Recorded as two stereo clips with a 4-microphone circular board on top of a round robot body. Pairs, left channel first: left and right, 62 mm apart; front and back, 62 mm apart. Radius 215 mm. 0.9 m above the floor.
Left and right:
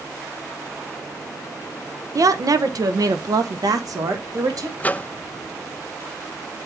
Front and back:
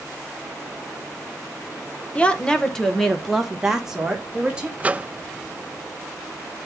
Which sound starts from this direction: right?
A woman speaking, at 2.1 s.